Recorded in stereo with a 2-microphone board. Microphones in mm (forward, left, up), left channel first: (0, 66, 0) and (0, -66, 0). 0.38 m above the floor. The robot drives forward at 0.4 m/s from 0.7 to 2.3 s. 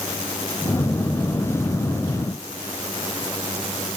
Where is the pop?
No pop in this recording.